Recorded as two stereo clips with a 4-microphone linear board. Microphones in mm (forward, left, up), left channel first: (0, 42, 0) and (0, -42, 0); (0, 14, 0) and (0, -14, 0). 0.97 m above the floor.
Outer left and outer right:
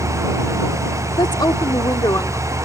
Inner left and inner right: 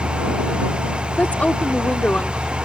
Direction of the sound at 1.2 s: 65° left (ahead or behind).